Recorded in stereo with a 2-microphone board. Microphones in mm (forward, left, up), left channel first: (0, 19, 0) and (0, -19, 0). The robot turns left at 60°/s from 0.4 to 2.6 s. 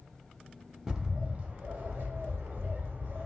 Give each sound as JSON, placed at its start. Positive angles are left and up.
{"t": 0.9, "sound": "a bird", "azimuth_deg": -10, "distance_m": 0.7}